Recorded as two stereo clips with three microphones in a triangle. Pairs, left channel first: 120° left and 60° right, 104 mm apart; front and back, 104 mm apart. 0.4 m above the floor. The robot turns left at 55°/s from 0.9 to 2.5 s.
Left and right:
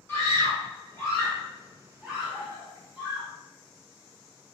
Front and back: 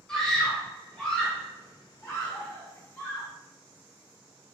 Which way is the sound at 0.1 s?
80° left.